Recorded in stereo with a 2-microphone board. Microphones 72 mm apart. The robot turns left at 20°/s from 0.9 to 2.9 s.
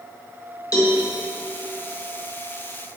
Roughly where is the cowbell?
Left.